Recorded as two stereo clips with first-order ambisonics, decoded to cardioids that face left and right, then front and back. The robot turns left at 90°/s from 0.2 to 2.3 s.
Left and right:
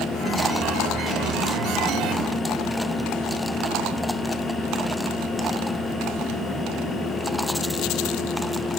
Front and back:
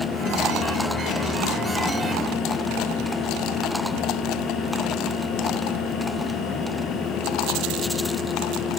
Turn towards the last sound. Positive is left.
No sound to turn to.